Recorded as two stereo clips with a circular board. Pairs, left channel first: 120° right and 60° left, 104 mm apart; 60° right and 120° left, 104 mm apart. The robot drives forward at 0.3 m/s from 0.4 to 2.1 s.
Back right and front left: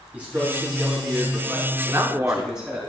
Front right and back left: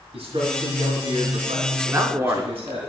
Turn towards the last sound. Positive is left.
turn(degrees=95)